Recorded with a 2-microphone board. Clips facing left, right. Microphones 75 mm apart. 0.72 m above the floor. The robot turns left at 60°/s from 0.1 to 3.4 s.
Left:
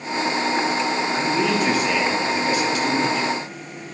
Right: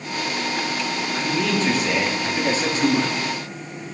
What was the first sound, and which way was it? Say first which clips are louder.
A man speaking: even; 40° left.